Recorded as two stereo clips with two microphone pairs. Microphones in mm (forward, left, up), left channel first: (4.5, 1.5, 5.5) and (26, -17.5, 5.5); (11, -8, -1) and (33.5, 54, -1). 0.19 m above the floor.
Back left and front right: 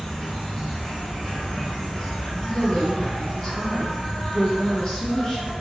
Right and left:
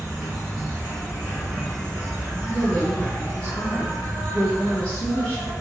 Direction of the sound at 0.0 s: 155° left.